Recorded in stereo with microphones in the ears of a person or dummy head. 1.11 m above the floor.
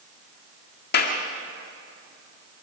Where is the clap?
60° left (ahead or behind), 1.8 m.